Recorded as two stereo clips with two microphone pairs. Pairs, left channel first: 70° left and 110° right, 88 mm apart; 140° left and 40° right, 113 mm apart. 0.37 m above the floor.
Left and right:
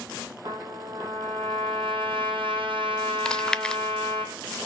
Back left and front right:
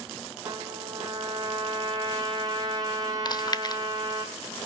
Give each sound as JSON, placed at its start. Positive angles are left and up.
{"t": 0.4, "sound": "a trumpet", "azimuth_deg": -100, "distance_m": 4.5}
{"t": 3.2, "sound": "chewing", "azimuth_deg": 145, "distance_m": 0.7}